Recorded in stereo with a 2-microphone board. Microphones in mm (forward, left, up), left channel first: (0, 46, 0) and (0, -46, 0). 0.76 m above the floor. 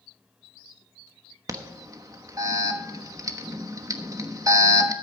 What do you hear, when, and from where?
1.5 s an alarm: 35° right (ahead or behind), 1.1 m